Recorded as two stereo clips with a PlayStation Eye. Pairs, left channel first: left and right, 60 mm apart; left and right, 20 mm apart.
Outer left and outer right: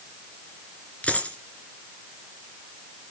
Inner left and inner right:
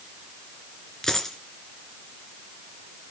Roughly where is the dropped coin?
Left.